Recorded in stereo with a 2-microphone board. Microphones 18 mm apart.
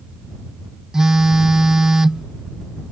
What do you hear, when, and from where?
0.9 s a phone buzzing: 35° right (ahead or behind)